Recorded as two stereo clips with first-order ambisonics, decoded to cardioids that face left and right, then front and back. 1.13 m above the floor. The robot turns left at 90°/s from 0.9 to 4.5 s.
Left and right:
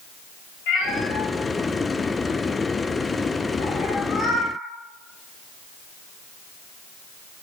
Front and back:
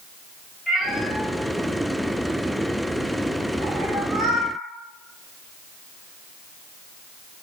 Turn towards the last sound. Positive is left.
turn(degrees=130)